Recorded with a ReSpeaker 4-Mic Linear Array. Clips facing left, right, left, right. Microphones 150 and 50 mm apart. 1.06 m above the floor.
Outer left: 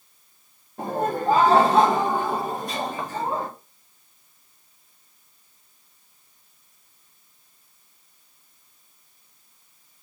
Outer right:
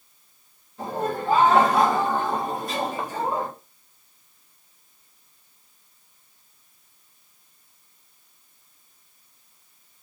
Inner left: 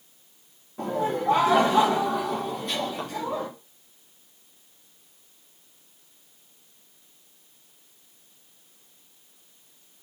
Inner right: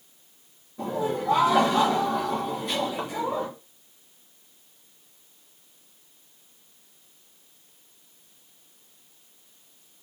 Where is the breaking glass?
I don't hear breaking glass.